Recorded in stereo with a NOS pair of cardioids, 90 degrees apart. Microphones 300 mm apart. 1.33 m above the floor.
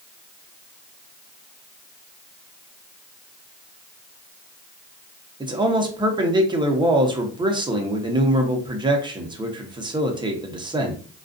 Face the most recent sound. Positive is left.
turn(degrees=-15)